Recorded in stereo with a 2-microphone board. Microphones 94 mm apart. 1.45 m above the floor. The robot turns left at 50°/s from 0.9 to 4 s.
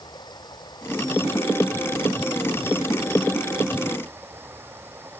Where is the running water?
130° left; by 5.2 s 25° right.